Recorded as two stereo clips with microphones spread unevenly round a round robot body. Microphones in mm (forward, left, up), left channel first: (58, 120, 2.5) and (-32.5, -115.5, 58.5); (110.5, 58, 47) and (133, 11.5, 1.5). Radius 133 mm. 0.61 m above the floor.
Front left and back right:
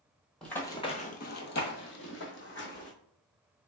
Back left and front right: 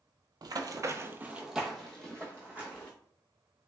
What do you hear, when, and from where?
0.4 s running footsteps: 35° right, 0.7 m; by 2.9 s 125° left, 1.5 m